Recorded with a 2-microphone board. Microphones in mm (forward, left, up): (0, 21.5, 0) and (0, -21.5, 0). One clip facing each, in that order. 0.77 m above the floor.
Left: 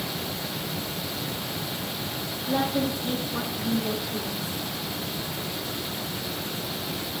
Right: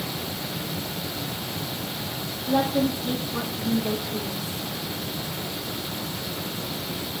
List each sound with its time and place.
2.5 s a woman speaking: 5° right (ahead or behind), 1.6 m